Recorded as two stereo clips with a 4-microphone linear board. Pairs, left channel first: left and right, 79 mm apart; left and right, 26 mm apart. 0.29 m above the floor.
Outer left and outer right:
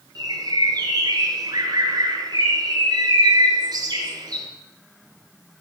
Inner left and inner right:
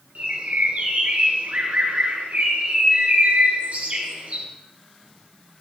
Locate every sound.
0.1 s a bird: 55° right (ahead or behind), 2.5 m